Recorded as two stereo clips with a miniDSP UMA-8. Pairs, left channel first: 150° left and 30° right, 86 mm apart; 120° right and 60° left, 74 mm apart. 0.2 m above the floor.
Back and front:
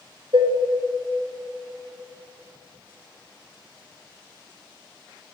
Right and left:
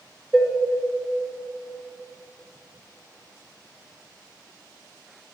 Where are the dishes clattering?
25° right, 1.8 m.